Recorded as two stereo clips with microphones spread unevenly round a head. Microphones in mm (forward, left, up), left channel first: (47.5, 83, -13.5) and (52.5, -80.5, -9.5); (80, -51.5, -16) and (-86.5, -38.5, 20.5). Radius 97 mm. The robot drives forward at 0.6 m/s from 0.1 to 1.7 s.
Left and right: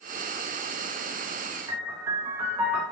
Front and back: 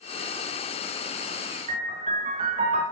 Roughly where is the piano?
Behind.